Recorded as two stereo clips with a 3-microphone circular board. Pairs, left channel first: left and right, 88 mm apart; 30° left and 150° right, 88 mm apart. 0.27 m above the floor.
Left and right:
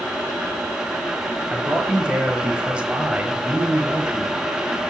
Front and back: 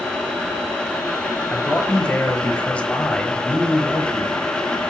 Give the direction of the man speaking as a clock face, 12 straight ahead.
1 o'clock.